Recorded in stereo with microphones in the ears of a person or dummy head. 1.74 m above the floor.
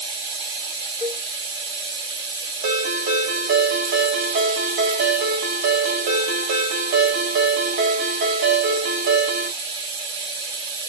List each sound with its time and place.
0.0 s running water: 25° right (ahead or behind), 0.9 m
1.0 s a cowbell: 5° right (ahead or behind), 1.8 m
2.6 s a ringtone: 45° right (ahead or behind), 0.8 m